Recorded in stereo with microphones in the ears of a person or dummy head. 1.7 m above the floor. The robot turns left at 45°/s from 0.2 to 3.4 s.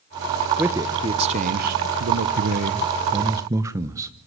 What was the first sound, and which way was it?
A man speaking, 10° right.